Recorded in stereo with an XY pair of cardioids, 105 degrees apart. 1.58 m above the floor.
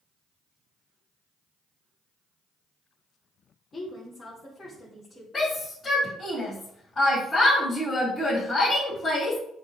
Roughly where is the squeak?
I don't hear a squeak.